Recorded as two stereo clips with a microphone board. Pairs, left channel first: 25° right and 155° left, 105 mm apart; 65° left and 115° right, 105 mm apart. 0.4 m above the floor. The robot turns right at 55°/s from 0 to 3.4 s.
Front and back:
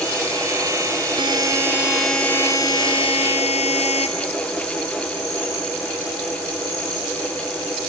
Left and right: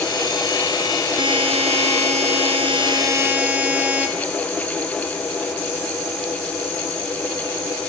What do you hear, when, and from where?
1.2 s a buzzer: 160° right, 1.7 m; by 4.1 s 35° right, 1.7 m